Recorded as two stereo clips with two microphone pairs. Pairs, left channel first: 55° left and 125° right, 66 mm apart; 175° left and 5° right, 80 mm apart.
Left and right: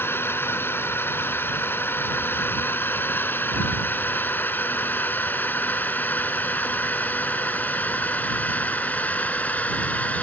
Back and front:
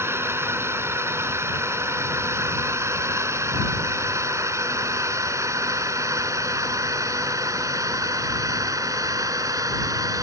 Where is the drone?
35° left; by 10.2 s straight ahead.